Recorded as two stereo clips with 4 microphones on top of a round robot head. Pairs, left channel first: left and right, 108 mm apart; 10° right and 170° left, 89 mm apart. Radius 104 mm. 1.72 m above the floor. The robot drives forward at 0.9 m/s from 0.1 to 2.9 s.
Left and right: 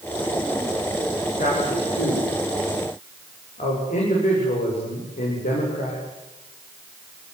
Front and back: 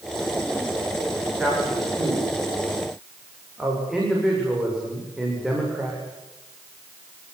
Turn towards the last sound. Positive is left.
turn(degrees=85)